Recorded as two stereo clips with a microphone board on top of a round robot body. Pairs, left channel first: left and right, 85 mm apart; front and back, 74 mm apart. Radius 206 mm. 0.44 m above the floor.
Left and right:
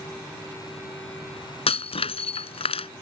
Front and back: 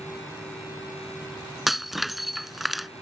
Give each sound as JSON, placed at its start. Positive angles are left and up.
{"t": 1.7, "sound": "breaking glass", "azimuth_deg": 90}